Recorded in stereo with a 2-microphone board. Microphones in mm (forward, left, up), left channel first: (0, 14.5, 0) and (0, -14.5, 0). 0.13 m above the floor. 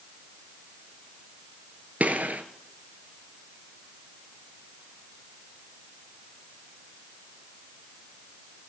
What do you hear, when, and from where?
2.0 s a gunshot: 55° right (ahead or behind), 1.2 m